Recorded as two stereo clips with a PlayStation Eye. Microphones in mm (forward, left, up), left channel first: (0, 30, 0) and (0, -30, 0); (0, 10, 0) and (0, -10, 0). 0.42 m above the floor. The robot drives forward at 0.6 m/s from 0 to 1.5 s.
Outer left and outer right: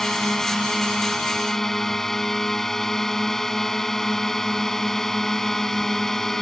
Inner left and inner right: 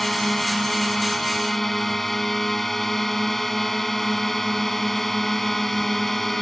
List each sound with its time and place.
0.0 s a drone: 5° left (ahead or behind)